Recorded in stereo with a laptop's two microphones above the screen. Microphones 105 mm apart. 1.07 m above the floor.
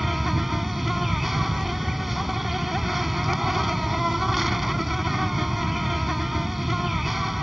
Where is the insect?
Centre (ahead or behind).